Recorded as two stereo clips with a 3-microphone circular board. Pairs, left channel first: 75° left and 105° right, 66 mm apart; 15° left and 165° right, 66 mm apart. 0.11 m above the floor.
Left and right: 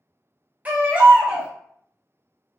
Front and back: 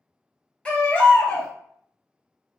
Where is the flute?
No flute in this recording.